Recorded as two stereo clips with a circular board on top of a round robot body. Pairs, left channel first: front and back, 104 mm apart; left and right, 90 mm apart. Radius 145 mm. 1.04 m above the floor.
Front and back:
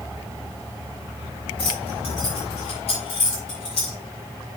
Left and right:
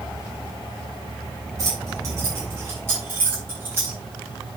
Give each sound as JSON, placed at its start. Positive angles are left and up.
{"t": 1.6, "sound": "keys jangling", "azimuth_deg": -35, "distance_m": 4.5}